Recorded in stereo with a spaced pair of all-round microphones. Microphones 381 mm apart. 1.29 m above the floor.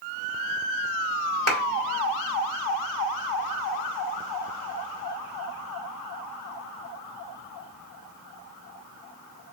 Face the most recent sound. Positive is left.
turn(degrees=-40)  # may be behind; listen again after turning